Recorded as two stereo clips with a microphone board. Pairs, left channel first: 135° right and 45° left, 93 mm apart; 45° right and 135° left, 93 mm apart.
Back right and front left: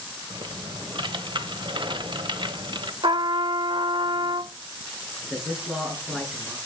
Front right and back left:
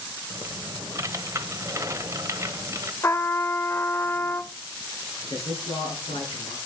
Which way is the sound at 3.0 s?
15° left.